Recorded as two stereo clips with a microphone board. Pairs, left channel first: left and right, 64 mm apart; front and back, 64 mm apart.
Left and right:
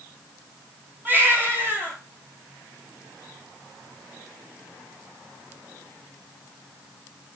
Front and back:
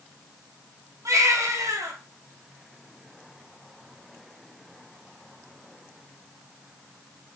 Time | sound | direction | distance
1.1 | a baby crying | 145° right | 3 m